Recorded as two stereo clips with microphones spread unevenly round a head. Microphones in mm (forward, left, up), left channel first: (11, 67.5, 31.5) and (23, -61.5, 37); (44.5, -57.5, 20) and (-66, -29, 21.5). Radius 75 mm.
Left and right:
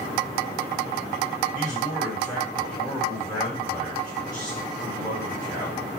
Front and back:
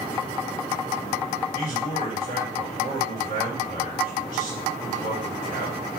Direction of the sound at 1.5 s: 165° left.